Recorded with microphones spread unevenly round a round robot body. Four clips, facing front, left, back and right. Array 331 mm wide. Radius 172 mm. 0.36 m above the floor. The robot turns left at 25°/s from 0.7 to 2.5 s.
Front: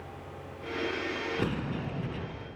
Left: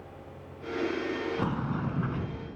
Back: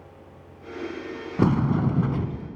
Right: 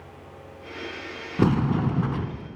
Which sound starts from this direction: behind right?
A sliding door, at 1.4 s.